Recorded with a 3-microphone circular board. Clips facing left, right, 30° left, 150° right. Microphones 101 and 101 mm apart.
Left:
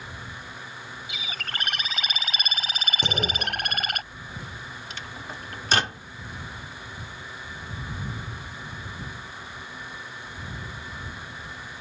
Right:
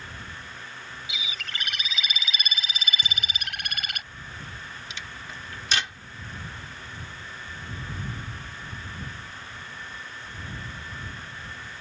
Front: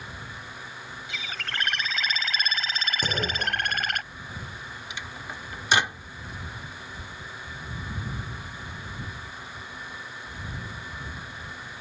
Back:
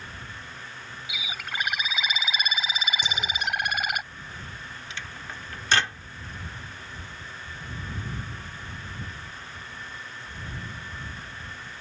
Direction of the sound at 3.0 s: 75° left.